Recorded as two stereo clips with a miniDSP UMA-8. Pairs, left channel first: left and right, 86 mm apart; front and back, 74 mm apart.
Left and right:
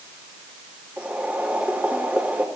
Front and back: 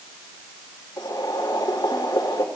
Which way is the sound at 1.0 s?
15° right.